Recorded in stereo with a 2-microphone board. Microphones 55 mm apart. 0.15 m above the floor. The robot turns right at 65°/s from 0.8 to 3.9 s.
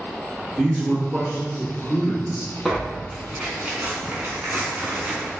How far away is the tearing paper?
About 0.8 m.